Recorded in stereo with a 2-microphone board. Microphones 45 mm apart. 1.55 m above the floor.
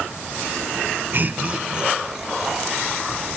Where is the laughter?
45° right (ahead or behind), 1.0 m; by 3.3 s centre (ahead or behind), 3.5 m.